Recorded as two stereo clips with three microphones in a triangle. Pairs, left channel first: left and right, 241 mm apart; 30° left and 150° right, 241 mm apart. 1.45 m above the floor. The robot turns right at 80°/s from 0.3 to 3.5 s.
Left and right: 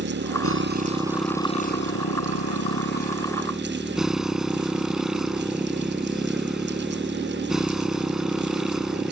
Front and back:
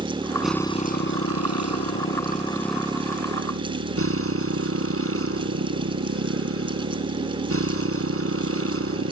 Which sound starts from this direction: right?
A motorcycle, at 0.0 s.